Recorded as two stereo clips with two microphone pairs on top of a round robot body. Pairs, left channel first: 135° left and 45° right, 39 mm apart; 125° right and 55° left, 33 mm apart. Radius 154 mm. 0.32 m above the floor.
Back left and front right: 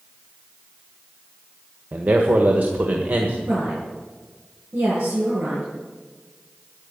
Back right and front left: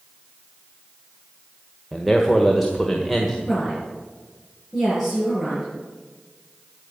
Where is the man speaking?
40° right, 1.8 m.